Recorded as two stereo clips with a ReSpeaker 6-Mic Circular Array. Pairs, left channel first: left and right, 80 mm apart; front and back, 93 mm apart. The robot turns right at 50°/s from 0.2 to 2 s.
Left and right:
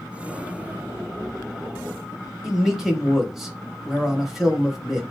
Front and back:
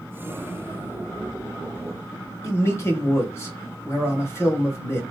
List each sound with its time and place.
2.4 s a man speaking: 5° right, 1.0 m